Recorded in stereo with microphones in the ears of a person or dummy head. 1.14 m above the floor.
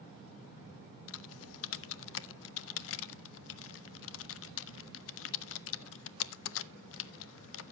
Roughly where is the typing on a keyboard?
Left.